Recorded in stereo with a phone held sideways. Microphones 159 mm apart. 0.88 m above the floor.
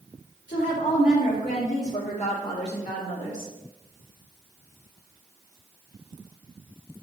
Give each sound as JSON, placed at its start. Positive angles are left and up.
{"t": 0.5, "sound": "a woman speaking", "side_deg": 65, "distance_m": 1.9}